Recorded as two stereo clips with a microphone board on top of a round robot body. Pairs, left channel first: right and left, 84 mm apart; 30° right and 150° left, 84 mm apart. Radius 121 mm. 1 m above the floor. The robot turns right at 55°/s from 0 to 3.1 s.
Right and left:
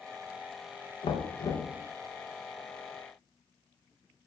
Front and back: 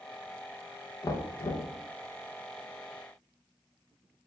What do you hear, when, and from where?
1.0 s knocking: 85° right, 0.7 m; by 1.7 s 45° right, 0.7 m